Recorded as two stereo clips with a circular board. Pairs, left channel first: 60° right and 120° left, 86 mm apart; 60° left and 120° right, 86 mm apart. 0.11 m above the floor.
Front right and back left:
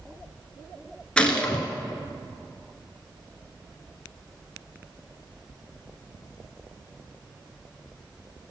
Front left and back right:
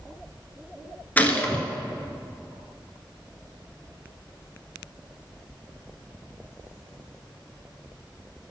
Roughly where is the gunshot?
Ahead.